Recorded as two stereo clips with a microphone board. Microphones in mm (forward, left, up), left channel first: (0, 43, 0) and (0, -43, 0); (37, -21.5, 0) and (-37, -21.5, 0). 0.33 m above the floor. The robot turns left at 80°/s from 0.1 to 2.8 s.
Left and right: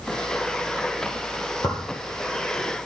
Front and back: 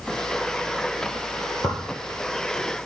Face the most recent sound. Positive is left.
turn(degrees=-45)